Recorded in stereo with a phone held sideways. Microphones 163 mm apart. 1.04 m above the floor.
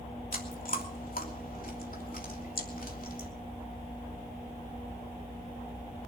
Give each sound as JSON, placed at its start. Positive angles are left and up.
{"t": 0.3, "sound": "chewing", "side_deg": 60, "distance_m": 3.0}